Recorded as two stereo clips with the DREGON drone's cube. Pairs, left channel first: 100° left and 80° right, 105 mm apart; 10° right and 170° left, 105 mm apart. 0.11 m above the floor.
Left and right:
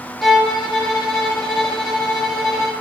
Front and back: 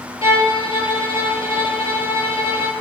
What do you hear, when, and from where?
0.2 s a violin: 10° left, 1.5 m